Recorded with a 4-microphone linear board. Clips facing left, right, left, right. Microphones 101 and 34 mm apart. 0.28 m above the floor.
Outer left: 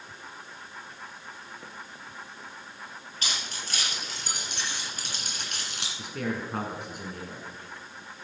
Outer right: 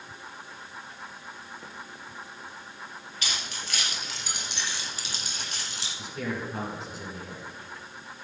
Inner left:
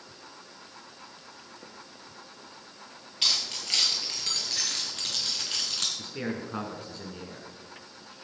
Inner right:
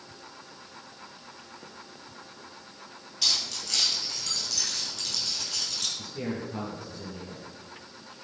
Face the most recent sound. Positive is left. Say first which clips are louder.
# outer left 1 dB, even
turn(degrees=60)  # may be behind; listen again after turning